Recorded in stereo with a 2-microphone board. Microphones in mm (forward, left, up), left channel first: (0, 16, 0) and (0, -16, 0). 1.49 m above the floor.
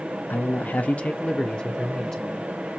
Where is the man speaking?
65° left (ahead or behind), 0.8 m; by 2.5 s 15° left (ahead or behind), 1.8 m.